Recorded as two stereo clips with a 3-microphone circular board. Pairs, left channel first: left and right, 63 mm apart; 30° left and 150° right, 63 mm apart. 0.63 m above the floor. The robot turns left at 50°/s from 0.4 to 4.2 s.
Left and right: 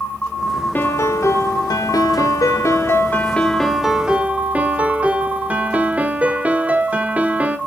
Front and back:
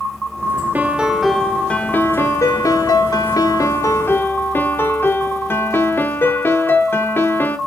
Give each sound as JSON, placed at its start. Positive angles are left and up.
{"t": 0.8, "sound": "a piano", "azimuth_deg": 150, "distance_m": 1.0}